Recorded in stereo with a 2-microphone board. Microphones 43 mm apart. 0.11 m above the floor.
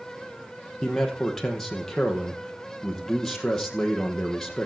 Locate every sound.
0.8 s a man speaking: 10° left (ahead or behind), 3.5 m